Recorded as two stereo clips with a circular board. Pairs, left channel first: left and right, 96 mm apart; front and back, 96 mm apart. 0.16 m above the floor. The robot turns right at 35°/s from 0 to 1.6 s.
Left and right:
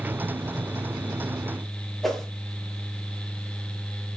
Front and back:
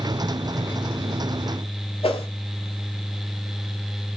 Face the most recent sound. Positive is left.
turn(degrees=0)